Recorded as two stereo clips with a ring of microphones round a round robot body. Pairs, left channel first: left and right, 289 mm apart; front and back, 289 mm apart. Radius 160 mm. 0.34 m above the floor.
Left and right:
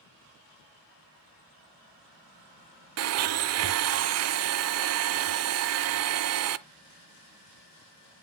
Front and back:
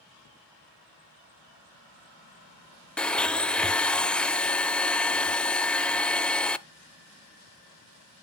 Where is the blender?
85° right, 0.5 m.